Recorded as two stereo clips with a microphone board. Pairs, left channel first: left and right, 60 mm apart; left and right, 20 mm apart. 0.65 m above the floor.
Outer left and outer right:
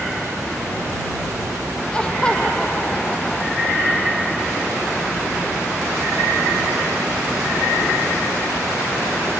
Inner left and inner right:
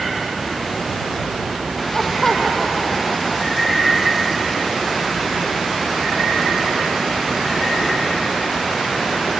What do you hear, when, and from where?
1.9 s laughter: 15° left (ahead or behind)